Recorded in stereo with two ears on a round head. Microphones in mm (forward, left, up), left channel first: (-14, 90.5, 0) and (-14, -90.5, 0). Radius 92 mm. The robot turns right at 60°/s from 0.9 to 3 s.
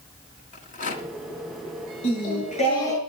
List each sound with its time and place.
0.5 s a rattle: 45° left (ahead or behind), 2.0 m; by 1.1 s 35° left (ahead or behind), 2.0 m
2.0 s singing: 110° left, 6 m; by 3.0 s 170° left, 6 m